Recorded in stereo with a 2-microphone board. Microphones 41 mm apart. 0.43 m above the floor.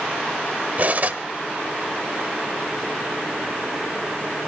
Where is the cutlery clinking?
40° right (ahead or behind), 1.1 m.